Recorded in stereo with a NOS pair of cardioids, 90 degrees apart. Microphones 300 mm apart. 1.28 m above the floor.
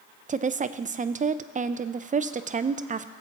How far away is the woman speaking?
About 0.6 m.